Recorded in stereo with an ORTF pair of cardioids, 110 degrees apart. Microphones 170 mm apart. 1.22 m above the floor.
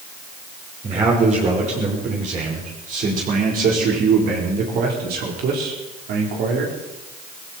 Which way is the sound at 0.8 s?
40° right.